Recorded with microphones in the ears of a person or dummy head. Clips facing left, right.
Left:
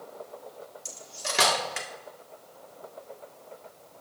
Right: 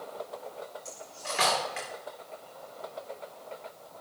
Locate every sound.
0.8 s cutlery clinking: 60° left (ahead or behind), 1.6 m